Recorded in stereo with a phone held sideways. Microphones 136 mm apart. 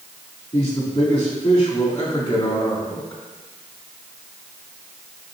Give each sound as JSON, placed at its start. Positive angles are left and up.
{"t": 0.5, "sound": "a man speaking", "side_deg": 50, "distance_m": 3.0}